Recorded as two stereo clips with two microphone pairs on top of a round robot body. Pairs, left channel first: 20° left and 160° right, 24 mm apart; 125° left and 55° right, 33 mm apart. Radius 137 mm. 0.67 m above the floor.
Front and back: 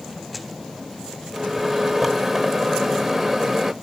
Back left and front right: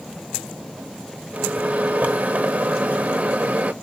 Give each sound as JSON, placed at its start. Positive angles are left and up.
{"t": 1.3, "sound": "a microwave", "azimuth_deg": -85, "distance_m": 1.2}